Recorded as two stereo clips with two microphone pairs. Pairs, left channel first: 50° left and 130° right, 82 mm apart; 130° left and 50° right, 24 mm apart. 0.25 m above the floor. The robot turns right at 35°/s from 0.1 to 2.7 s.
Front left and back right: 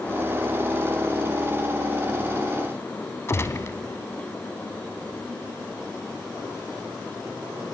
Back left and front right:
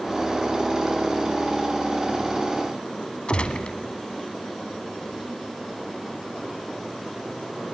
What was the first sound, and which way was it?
A gunshot, 100° left.